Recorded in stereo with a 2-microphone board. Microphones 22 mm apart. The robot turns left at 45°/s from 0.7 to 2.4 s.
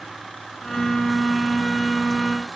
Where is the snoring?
I don't hear snoring.